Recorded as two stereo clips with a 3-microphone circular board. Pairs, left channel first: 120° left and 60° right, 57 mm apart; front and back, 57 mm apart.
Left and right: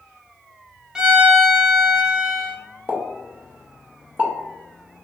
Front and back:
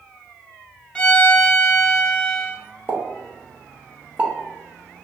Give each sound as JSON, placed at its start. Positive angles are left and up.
{"t": 0.9, "sound": "a violin", "azimuth_deg": -15, "distance_m": 0.5}
{"t": 2.9, "sound": "a pop", "azimuth_deg": -120, "distance_m": 0.6}